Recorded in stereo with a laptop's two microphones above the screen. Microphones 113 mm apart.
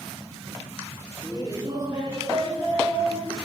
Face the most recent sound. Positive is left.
turn(degrees=-40)  # may be behind; listen again after turning